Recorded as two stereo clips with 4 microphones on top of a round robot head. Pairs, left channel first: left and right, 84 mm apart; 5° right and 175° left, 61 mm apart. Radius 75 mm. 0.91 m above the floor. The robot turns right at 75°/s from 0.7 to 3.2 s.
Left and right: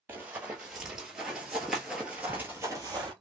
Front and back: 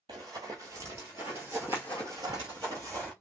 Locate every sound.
0.1 s running footsteps: 155° right, 1.2 m; by 3.1 s 110° right, 1.3 m